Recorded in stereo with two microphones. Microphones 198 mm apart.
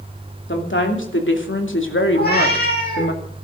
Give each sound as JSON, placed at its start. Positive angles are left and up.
{"t": 0.5, "sound": "a woman speaking", "side_deg": 75, "distance_m": 3.0}
{"t": 2.1, "sound": "a cat meowing", "side_deg": 55, "distance_m": 7.0}